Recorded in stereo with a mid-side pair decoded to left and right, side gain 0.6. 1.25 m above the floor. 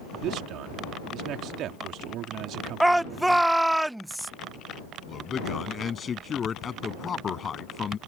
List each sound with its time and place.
0.2 s a man speaking: 60° right
2.8 s a shout: 10° right
5.1 s a man speaking: 30° left